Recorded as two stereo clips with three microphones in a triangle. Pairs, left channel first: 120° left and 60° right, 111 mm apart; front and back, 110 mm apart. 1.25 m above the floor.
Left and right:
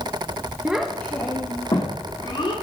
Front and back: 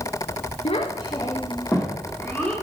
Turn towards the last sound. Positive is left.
turn(degrees=85)